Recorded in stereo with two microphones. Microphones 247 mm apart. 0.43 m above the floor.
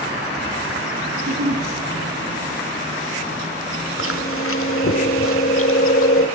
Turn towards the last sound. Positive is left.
turn(degrees=60)  # may be behind; listen again after turning